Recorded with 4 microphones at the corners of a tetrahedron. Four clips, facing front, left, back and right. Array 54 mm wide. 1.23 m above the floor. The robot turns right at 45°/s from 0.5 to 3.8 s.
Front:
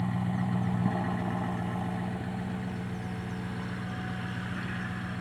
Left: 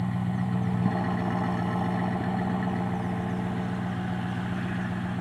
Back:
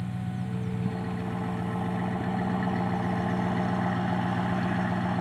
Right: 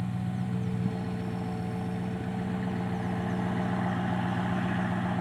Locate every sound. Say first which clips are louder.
0.0 s an engine running: left 4 dB, front 3 dB; 45° left; by 5.2 s 165° right